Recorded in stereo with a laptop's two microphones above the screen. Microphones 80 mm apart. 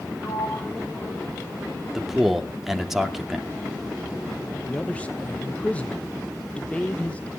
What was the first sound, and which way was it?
A sliding door, 65° left (ahead or behind).